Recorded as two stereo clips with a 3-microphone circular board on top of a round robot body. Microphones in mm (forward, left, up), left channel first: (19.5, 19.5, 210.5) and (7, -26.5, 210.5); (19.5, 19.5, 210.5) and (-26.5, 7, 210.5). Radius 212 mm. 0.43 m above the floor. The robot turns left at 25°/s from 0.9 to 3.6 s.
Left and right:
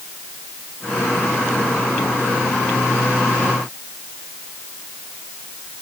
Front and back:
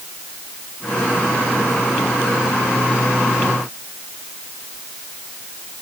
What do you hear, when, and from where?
Only background noise.